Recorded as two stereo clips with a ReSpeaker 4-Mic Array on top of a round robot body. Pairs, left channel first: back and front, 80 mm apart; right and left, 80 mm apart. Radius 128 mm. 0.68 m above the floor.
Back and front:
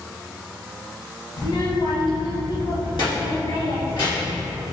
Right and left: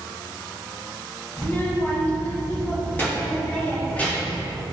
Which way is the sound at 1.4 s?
150° right.